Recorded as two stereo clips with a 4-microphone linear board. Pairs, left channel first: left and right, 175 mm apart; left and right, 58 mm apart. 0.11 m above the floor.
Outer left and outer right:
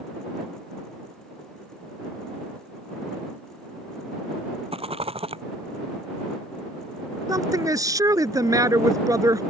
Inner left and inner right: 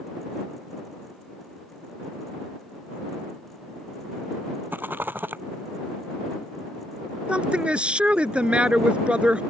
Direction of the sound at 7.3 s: 20° right (ahead or behind).